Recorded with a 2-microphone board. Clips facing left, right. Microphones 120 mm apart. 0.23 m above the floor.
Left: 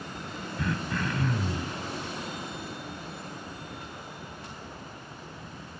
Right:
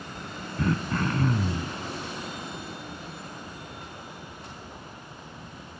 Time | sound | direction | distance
0.6 | throat clearing | 40° right (ahead or behind) | 0.6 m